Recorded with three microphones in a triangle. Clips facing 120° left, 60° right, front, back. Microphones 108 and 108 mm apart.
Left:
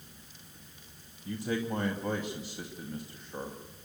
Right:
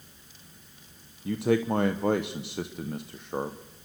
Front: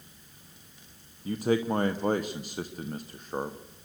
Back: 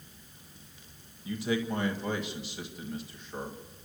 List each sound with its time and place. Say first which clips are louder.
1.2 s a man speaking: right 8 dB, front 5 dB; 45° right, 1.0 m